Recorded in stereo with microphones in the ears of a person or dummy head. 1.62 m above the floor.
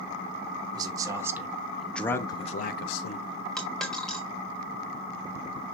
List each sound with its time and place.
0.7 s a man speaking: 25° right (ahead or behind), 1.8 m; by 3.3 s 85° left, 0.9 m
3.6 s a dropped coin: 5° left (ahead or behind), 1.8 m